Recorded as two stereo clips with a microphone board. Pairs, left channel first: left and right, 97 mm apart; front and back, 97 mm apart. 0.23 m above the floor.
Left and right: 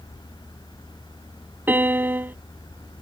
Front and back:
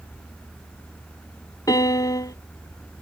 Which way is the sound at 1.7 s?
30° right.